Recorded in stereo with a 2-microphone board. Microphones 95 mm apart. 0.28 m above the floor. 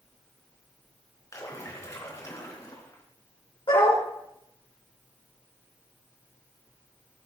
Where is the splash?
35° left (ahead or behind), 3.5 m.